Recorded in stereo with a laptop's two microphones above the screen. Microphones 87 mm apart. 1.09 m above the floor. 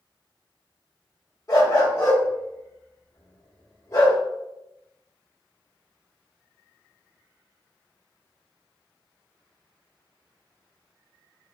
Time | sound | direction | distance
1.5 | a dog barking | 40° left (ahead or behind) | 1.0 m